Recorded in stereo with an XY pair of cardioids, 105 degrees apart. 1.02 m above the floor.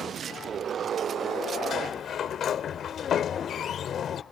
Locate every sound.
1.7 s a sliding door: 60° left